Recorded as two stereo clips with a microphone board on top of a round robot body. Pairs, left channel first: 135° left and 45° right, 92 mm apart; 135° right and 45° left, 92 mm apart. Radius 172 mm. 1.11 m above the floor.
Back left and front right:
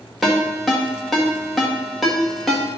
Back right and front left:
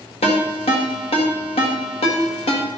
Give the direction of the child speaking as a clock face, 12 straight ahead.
No child speaking in this recording.